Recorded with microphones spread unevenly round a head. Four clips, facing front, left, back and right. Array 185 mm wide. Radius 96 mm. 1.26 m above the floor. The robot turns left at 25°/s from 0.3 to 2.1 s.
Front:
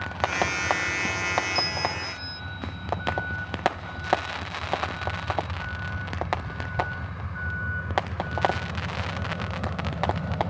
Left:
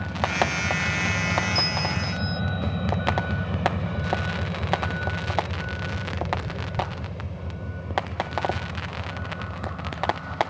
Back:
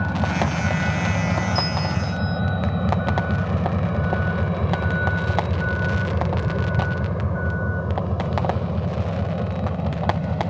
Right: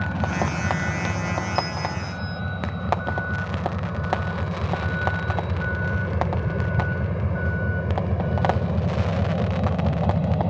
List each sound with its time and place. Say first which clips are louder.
0.0 s a vehicle: even, back 4 dB; 165° right; by 10.5 s 115° right
1.6 s a bell: right 1 dB, back 4 dB; 20° left; by 2.4 s 5° left